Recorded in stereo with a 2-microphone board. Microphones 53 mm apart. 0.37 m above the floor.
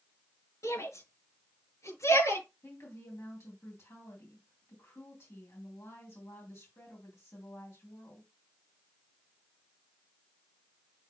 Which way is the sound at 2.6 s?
60° left (ahead or behind).